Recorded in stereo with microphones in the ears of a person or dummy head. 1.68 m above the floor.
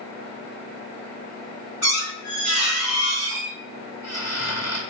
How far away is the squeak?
About 1.5 m.